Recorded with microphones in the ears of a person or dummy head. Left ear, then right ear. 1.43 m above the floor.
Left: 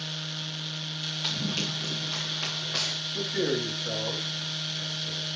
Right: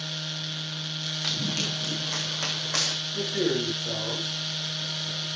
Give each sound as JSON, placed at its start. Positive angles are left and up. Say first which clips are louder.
{"t": 1.2, "sound": "running footsteps", "louder": "right 2 dB", "side_deg": 0, "distance_m": 3.5}
{"t": 3.1, "sound": "a man speaking", "louder": "right 1 dB", "side_deg": 15, "distance_m": 7.0}